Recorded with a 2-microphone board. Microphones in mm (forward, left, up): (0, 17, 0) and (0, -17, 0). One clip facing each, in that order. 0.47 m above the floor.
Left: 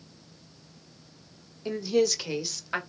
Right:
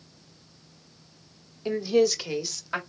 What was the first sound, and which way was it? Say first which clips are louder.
A woman speaking: right 3 dB; 15° right (ahead or behind).